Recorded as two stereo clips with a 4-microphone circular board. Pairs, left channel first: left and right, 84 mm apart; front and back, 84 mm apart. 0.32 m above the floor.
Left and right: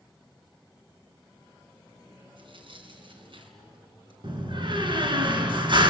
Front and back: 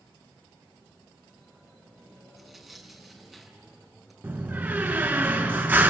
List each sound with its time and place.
2.4 s tearing paper: 95° right, 3 m
4.2 s a door slam: 115° right, 2.5 m